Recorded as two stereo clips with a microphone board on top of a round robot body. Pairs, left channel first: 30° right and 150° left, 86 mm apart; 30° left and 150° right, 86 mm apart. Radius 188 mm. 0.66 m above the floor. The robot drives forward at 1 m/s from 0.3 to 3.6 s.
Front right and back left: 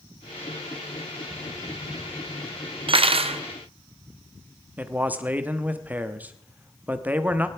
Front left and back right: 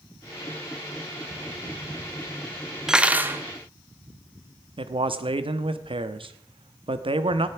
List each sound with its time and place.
2.9 s cutlery clinking: 125° left, 0.9 m; by 3.4 s 145° left, 1.3 m
4.8 s a man speaking: 140° right, 1.4 m